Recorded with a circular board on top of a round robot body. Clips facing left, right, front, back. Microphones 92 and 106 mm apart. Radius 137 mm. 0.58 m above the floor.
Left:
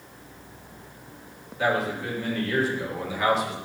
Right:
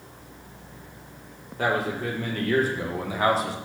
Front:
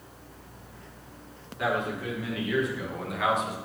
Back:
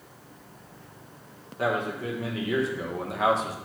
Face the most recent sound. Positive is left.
turn(degrees=-135)